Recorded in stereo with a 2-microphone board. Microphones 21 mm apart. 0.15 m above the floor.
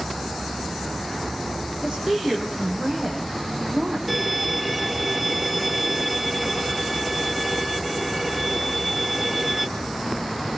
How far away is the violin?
About 1.2 m.